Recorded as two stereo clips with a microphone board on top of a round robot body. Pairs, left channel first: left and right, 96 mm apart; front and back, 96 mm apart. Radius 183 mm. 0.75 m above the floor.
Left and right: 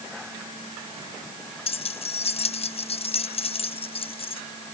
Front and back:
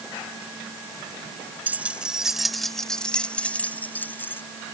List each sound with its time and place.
1.7 s keys jangling: 105° left; by 4.4 s 70° left